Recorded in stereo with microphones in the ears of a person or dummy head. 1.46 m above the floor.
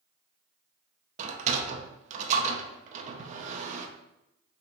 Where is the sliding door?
40° right (ahead or behind), 0.6 m.